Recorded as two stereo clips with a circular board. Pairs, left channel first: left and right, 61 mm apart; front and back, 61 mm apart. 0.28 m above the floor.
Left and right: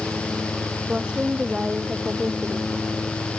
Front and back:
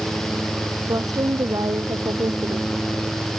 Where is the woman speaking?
165° right.